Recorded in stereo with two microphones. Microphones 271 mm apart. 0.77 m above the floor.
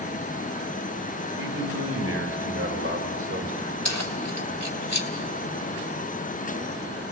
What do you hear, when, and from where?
1.4 s a man speaking: 65° right (ahead or behind), 4 m; by 3.8 s 45° right (ahead or behind), 3 m
3.9 s keys jangling: 70° left (ahead or behind), 2.5 m